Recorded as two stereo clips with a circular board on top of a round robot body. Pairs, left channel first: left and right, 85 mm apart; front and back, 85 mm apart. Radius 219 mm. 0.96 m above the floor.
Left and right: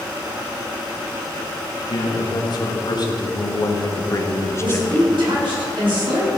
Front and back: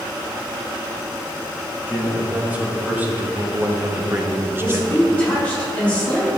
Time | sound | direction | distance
1.9 | a man speaking | 110° left | 2 m
4.6 | a woman speaking | 75° right | 3 m